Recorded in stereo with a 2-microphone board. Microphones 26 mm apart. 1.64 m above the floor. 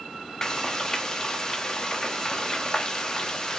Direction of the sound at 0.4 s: 20° left (ahead or behind).